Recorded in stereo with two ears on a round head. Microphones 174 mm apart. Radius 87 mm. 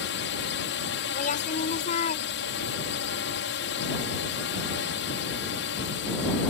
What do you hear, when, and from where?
0.0 s a drone: 65° left (ahead or behind)
1.1 s a woman speaking: 45° left (ahead or behind)